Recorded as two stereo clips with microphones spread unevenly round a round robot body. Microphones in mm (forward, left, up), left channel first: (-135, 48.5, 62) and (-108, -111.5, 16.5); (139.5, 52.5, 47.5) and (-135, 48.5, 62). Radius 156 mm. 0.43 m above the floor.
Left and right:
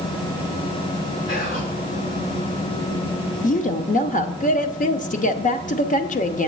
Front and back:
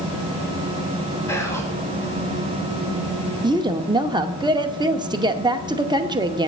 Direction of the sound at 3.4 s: 115° left.